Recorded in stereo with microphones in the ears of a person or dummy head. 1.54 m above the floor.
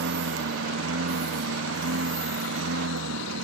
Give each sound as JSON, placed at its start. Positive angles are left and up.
{"t": 0.0, "sound": "a lawn mower", "side_deg": -90}